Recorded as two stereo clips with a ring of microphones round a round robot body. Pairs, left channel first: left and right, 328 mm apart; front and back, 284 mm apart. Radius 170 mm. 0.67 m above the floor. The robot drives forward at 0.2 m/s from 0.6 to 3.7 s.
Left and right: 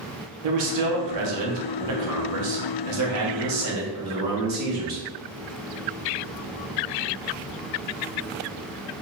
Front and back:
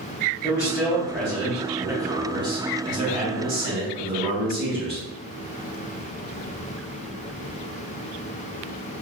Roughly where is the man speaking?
Right.